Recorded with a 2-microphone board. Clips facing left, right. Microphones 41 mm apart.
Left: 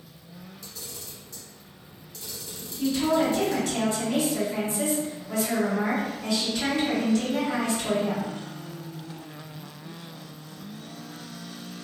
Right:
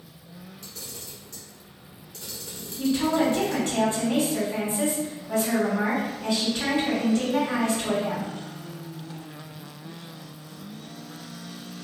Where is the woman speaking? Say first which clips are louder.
Even; 30° right (ahead or behind), 1.9 m.